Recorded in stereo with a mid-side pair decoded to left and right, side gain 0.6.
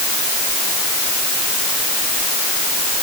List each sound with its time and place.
Only background noise.